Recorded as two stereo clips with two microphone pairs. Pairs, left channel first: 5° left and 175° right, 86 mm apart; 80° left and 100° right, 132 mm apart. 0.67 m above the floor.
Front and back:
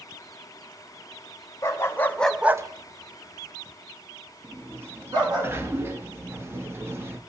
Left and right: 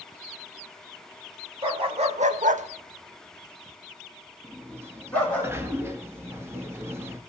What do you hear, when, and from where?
1.6 s a dog barking: 50° right, 1.2 m; by 5.4 s 160° left, 3 m
4.4 s a sliding door: 150° right, 0.8 m